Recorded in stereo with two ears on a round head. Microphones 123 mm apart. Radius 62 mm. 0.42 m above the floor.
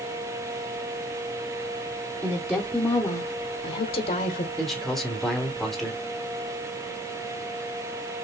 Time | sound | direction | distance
2.2 | a woman speaking | 15° right (ahead or behind) | 1.0 m
4.6 | a man speaking | centre (ahead or behind) | 1.3 m